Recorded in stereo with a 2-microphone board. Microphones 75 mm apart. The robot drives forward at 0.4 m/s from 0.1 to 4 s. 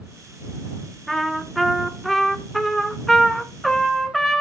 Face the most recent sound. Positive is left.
turn(degrees=0)  # may be behind; listen again after turning